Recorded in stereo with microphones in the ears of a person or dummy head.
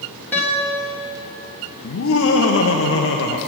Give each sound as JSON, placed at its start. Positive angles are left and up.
{"t": 0.3, "sound": "a guitar", "side_deg": 15, "distance_m": 1.6}
{"t": 1.8, "sound": "laughter", "side_deg": 65, "distance_m": 0.9}